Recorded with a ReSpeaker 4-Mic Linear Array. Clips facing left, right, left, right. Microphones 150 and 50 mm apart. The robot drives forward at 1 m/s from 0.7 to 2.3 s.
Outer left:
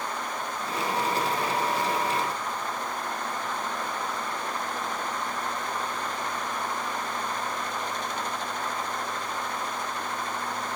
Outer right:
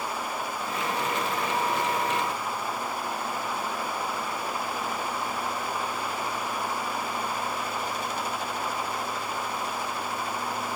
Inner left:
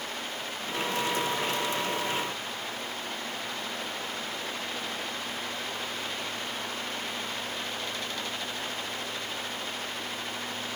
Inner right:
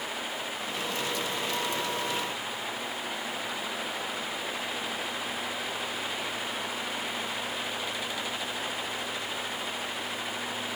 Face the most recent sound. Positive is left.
No sound to turn to.